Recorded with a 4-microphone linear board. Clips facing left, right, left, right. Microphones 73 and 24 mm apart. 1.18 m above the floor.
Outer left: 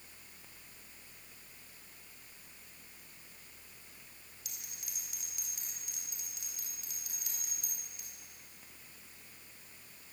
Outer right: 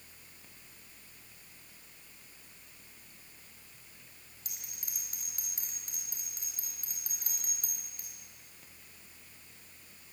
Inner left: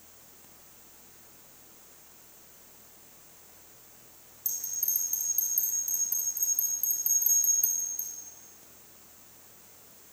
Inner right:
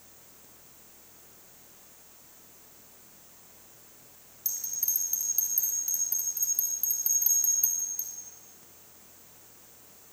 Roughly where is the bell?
Right.